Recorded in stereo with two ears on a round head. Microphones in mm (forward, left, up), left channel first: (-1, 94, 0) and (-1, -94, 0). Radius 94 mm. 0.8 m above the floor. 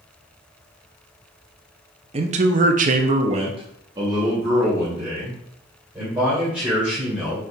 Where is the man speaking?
30° right (ahead or behind), 0.6 m; by 7.4 s 5° right (ahead or behind), 3 m.